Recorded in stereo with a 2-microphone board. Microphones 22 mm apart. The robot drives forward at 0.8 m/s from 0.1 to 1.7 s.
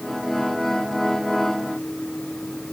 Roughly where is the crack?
I don't hear a crack.